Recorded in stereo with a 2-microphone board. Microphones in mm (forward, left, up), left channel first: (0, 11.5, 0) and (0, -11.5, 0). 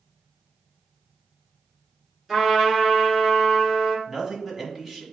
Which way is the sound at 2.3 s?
10° right (ahead or behind).